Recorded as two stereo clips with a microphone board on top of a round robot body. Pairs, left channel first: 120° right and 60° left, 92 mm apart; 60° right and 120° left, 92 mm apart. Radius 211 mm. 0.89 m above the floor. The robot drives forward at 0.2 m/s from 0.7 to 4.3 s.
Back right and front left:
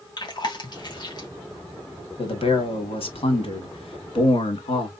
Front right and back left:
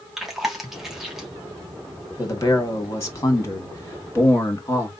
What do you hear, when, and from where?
0.2 s chewing: 155° right, 2 m
2.2 s a man speaking: 115° right, 2 m; by 4.9 s 125° right, 2.5 m